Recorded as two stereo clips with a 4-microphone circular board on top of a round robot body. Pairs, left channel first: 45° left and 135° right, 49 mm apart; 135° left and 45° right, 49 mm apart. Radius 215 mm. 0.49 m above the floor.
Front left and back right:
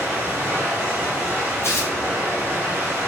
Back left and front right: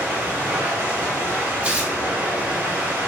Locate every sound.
0.0 s running water: 90° right, 1.6 m
1.6 s tearing paper: 25° left, 1.1 m